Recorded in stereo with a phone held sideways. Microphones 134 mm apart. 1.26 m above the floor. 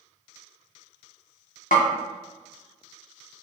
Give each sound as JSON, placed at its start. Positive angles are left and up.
{"t": 1.7, "sound": "a snare drum", "side_deg": 85, "distance_m": 0.6}